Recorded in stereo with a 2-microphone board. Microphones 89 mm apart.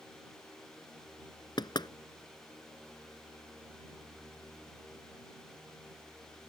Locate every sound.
1.6 s knocking: 55° left (ahead or behind)